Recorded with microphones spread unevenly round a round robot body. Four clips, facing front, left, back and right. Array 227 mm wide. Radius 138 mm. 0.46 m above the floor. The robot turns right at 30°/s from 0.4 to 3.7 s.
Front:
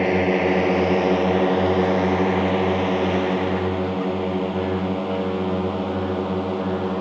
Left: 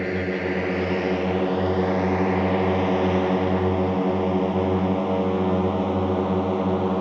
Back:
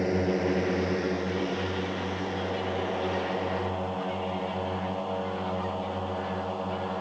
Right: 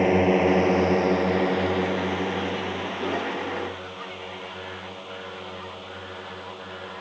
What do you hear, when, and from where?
0.0 s a drone: 40° right; by 7.0 s 55° left